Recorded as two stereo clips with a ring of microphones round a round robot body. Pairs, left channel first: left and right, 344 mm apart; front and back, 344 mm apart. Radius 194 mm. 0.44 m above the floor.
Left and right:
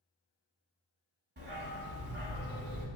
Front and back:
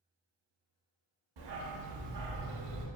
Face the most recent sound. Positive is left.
turn(degrees=-155)